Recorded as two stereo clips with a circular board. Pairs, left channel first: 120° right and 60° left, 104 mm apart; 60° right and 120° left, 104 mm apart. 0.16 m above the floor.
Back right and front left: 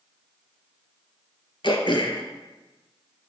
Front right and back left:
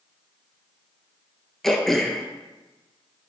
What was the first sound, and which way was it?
Throat clearing, 145° right.